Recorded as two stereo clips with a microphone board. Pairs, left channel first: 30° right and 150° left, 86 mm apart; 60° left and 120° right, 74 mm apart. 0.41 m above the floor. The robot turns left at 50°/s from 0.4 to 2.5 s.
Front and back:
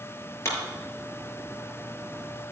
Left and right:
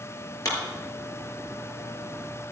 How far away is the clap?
About 5.5 m.